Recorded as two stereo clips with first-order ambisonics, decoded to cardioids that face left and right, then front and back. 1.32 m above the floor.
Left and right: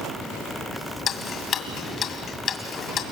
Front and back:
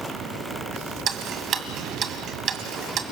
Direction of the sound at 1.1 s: 135° left.